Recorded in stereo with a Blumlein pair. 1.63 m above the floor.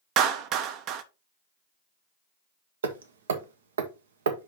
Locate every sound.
0.2 s a clap: 40° right, 0.8 m
2.8 s hammering: 65° right, 1.0 m